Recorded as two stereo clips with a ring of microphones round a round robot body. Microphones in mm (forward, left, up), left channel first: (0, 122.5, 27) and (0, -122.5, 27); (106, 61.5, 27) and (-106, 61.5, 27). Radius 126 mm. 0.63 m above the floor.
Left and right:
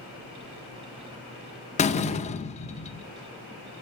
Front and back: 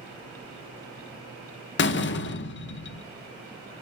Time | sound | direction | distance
1.8 | a door slam | 30° left | 0.8 m